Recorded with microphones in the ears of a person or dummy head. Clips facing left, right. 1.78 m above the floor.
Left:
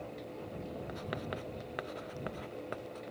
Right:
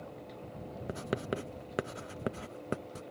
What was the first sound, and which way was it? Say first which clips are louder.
Writing: right 9 dB; 40° right (ahead or behind).